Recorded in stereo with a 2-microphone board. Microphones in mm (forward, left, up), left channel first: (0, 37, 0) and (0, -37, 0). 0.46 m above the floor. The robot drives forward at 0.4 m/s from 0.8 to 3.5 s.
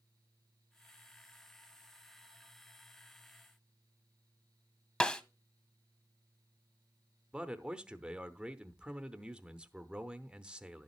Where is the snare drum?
15° left (ahead or behind), 0.6 m.